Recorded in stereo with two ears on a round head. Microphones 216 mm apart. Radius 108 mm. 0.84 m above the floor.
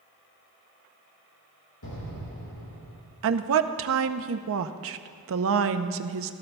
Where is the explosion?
90° left, 5.5 m.